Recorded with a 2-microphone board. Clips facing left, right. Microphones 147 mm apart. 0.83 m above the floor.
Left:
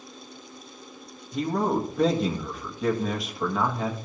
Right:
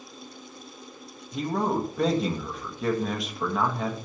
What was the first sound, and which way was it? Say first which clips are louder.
A man speaking: left 1 dB; centre (ahead or behind).